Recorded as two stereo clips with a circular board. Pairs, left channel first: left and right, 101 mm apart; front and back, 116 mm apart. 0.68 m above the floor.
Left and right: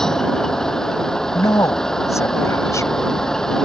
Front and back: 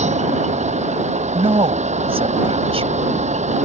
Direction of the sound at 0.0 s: 175° left.